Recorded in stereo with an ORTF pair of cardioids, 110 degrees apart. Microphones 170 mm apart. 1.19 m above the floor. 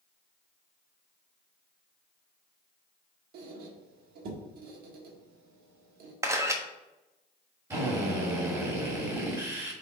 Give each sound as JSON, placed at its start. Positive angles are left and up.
{"t": 3.3, "sound": "a squeak", "azimuth_deg": -70, "distance_m": 1.5}
{"t": 6.2, "sound": "a camera shutter", "azimuth_deg": -15, "distance_m": 1.1}
{"t": 7.7, "sound": "a drill", "azimuth_deg": -20, "distance_m": 3.0}